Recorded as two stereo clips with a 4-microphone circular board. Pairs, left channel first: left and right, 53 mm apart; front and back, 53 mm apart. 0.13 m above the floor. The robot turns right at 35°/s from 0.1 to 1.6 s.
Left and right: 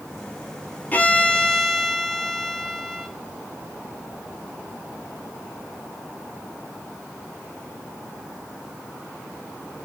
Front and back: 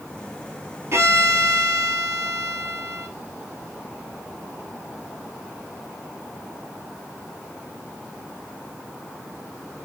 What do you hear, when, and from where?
0.9 s a violin: 145° left, 0.6 m; by 3.1 s 170° left, 0.6 m